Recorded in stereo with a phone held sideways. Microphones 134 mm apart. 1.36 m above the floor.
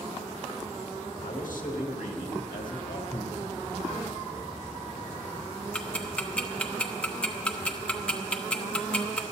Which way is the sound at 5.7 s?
10° left (ahead or behind).